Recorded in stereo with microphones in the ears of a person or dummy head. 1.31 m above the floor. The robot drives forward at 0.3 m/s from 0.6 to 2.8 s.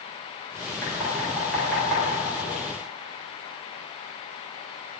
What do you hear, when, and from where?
0.8 s knocking: 10° left (ahead or behind), 3 m; by 2.0 s 5° left (ahead or behind), 3.5 m